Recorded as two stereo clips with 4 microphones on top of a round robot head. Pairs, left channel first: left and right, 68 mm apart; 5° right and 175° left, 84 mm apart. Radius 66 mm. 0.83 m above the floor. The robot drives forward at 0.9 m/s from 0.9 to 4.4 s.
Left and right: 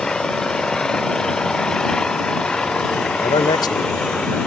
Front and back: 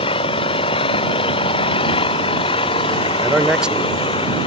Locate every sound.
0.0 s an engine running: 10° left
3.2 s a man speaking: 90° left; by 4.5 s 110° left